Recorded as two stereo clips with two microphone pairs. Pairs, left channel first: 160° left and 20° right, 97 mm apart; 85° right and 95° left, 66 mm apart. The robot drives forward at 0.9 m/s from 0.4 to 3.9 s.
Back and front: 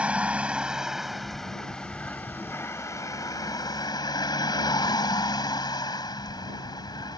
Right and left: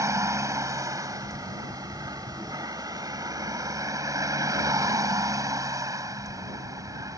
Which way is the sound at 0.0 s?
60° left.